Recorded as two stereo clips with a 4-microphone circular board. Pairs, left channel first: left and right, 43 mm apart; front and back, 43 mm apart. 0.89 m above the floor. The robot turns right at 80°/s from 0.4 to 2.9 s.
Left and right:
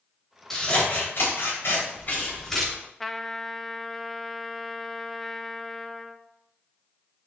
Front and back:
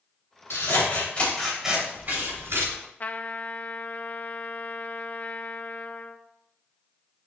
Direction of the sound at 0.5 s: 5° left.